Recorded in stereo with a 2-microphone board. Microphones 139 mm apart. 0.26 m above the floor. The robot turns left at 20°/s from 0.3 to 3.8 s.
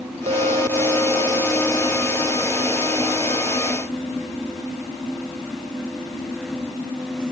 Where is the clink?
130° right; by 3.8 s 160° left.